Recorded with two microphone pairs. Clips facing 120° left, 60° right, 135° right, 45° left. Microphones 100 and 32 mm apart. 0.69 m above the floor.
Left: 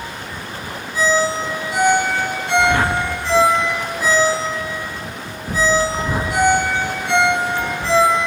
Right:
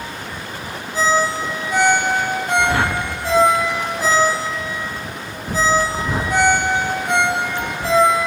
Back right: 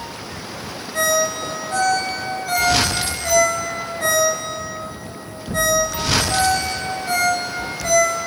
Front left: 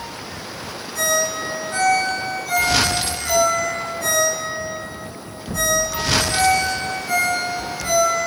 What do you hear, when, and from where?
0.9 s a ringtone: 105° right, 3.5 m